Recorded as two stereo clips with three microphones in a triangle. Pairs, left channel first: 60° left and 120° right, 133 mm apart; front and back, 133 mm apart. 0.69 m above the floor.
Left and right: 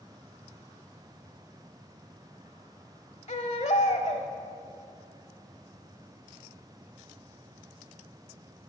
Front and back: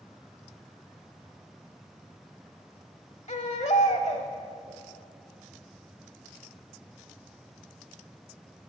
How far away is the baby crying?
About 1.0 m.